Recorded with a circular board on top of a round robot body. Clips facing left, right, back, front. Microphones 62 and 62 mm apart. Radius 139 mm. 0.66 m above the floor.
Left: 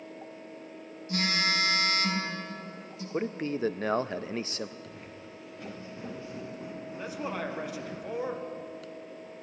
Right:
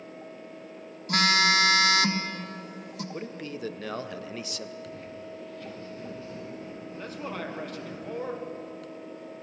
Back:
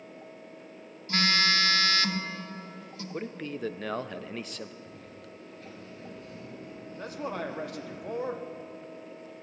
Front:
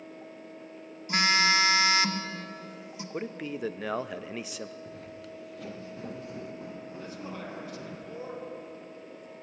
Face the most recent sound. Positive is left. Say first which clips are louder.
# left 1 dB, back 8 dB
turn(degrees=170)